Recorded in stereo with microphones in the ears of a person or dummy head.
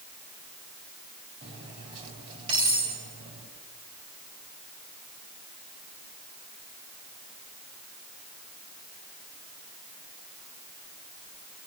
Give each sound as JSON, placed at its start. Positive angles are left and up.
{"t": 1.4, "sound": "cutlery clinking", "side_deg": -40, "distance_m": 5.5}